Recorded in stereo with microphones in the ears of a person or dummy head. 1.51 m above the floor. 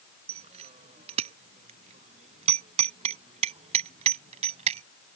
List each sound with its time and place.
0.3 s a bicycle bell: 30° right (ahead or behind); by 4.8 s 35° right (ahead or behind)